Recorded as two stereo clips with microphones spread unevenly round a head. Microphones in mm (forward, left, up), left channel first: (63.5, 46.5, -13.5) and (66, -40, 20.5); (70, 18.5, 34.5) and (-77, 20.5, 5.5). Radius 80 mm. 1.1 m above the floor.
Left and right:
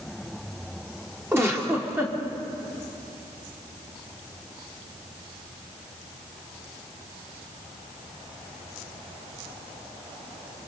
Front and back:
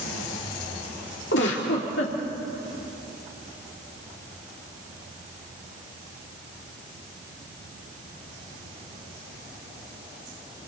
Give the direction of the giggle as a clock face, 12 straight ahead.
1 o'clock.